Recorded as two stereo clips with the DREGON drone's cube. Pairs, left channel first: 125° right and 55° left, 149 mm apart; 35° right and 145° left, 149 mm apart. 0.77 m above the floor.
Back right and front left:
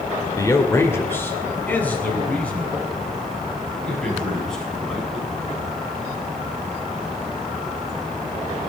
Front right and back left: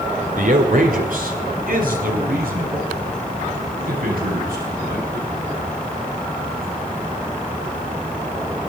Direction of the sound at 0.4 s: 170° left.